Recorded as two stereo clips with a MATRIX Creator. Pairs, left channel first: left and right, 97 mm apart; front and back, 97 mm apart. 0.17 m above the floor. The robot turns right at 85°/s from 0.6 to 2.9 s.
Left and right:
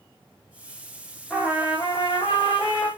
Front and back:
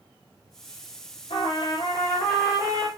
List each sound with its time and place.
1.3 s a trumpet: straight ahead, 5 m; by 2.9 s 135° left, 5 m